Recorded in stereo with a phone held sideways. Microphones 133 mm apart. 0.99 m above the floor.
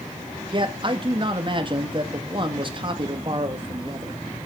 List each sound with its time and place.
0.5 s a man speaking: 40° right (ahead or behind), 1.7 m